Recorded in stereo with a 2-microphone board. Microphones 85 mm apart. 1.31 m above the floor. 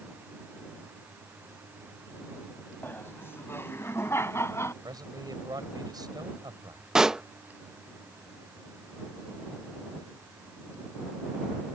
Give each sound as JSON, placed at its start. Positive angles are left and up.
{"t": 2.8, "sound": "laughter", "side_deg": 25}
{"t": 4.8, "sound": "a man speaking", "side_deg": -50}
{"t": 7.0, "sound": "a pop", "side_deg": -5}